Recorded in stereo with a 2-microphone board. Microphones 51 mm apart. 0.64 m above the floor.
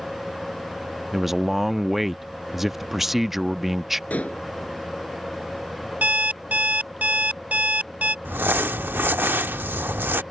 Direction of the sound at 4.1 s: 30° left (ahead or behind).